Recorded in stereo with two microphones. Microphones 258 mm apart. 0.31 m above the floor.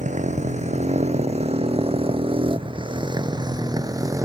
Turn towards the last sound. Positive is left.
turn(degrees=-10)  # may be behind; listen again after turning